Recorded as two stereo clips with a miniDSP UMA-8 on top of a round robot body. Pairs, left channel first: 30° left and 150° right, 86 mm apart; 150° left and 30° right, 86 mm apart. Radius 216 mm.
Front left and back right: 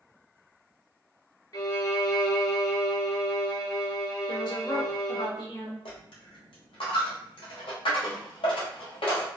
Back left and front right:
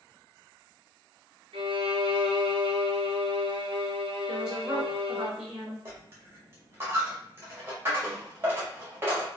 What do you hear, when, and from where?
1.5 s a violin: 15° right, 0.8 m
4.3 s a woman speaking: 50° left, 1.9 m
5.8 s a dropped coin: 35° left, 1.1 m